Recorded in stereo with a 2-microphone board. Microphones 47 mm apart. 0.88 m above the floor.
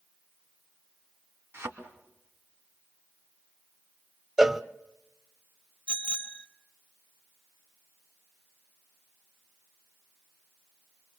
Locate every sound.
1.5 s a thud: 65° right (ahead or behind), 3.5 m
4.4 s a cowbell: 10° right (ahead or behind), 0.7 m
5.9 s a bicycle bell: 10° left (ahead or behind), 2.5 m